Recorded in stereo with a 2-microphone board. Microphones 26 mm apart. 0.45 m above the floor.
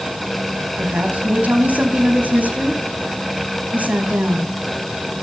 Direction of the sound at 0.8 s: 70° right (ahead or behind).